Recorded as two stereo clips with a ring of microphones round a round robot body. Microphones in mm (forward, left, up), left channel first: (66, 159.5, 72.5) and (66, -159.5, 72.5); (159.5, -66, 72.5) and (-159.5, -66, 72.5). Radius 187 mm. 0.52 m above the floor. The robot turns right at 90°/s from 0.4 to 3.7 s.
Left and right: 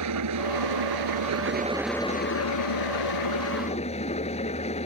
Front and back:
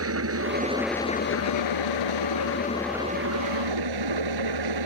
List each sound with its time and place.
0.0 s an engine running: 135° right; by 4.9 s 165° left